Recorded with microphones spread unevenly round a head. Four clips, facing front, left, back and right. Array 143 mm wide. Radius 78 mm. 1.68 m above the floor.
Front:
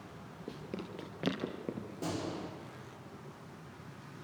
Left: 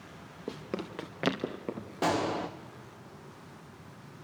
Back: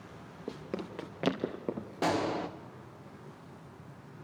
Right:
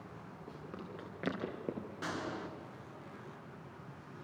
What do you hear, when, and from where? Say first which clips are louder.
0.5 s running footsteps: left 11 dB, back 4 dB; 120° left, 3 m; by 1.9 s 170° right, 2 m
2.0 s a gunshot: left 12 dB, back 9 dB; 130° left, 1.8 m